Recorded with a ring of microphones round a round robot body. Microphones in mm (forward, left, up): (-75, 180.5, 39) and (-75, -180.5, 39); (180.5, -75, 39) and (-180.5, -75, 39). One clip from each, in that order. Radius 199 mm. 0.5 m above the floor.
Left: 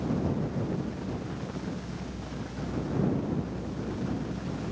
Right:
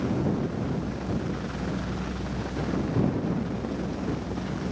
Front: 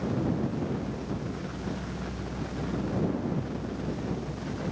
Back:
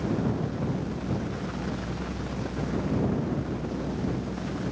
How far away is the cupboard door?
I don't hear a cupboard door.